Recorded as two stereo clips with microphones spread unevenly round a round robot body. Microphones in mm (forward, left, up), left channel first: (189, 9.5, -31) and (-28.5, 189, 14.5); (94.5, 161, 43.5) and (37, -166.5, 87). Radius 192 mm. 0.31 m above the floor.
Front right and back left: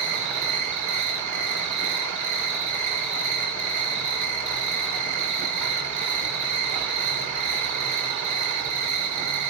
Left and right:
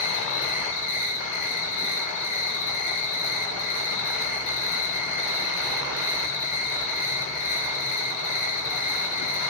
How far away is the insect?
About 6 m.